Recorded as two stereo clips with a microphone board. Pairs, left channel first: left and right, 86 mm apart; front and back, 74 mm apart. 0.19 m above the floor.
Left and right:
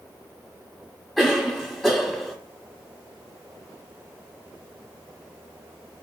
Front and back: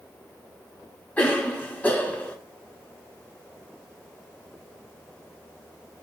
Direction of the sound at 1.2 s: Straight ahead.